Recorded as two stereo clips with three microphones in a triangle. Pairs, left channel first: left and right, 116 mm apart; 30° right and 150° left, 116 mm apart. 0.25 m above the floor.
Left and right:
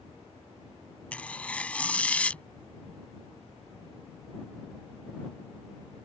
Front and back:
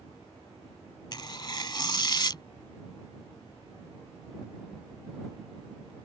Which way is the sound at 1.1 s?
15° left.